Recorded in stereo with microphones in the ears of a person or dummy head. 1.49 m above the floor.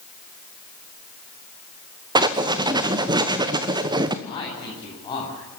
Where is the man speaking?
25° left (ahead or behind), 8 m.